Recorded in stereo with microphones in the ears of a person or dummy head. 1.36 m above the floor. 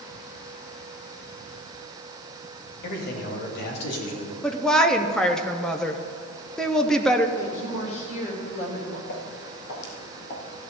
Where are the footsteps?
65° left (ahead or behind), 4 m; by 10.5 s 45° left (ahead or behind), 2.5 m.